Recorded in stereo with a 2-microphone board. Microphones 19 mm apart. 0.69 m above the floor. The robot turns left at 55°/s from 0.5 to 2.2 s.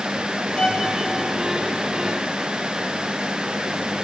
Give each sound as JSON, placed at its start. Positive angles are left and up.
{"t": 0.6, "sound": "a violin", "side_deg": 60, "distance_m": 1.3}